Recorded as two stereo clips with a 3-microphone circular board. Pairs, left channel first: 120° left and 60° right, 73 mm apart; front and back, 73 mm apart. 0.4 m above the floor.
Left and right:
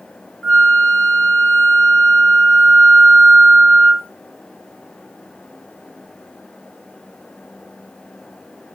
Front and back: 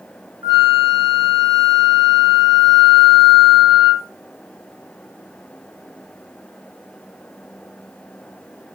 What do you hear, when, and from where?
0.4 s a flute: 170° right, 0.7 m